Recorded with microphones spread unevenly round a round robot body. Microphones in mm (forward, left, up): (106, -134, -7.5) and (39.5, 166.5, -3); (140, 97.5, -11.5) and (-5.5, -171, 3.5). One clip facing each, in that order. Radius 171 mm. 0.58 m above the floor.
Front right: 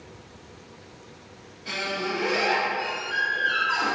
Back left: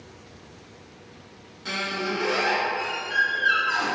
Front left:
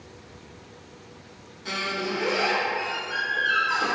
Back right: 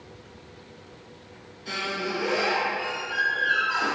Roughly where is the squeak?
Left.